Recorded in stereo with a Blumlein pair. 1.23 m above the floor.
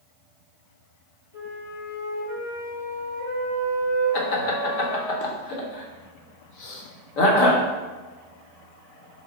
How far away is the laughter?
About 0.9 m.